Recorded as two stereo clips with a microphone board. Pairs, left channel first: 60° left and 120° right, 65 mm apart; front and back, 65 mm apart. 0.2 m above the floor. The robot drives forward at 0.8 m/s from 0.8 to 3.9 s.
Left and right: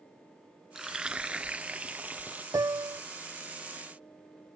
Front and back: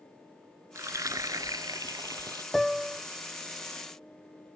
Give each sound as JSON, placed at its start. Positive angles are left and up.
{"t": 0.8, "sound": "frying", "azimuth_deg": 155}
{"t": 2.5, "sound": "a piano", "azimuth_deg": -85}